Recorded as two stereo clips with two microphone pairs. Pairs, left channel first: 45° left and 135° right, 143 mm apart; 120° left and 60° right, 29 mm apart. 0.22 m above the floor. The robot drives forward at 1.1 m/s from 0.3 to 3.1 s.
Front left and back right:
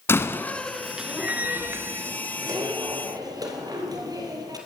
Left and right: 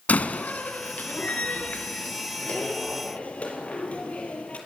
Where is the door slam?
120° left, 1.5 m; by 4.6 s 165° left, 4 m.